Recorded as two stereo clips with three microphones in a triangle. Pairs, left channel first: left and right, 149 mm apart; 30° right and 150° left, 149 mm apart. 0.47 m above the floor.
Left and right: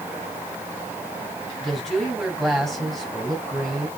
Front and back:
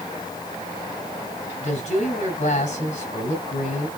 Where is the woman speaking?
Straight ahead, 3 m.